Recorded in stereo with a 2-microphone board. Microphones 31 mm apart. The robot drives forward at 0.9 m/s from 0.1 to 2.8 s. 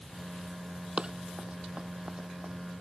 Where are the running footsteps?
35° right (ahead or behind).